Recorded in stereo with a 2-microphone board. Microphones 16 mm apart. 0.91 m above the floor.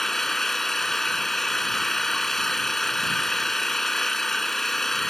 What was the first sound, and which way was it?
An engine running, 20° left (ahead or behind).